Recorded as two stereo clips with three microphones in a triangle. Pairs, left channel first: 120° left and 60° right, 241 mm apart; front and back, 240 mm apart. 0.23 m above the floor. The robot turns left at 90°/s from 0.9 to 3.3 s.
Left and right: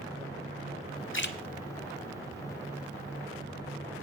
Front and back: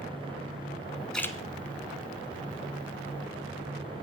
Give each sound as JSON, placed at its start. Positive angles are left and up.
{"t": 1.1, "sound": "a splash", "azimuth_deg": 90, "distance_m": 0.6}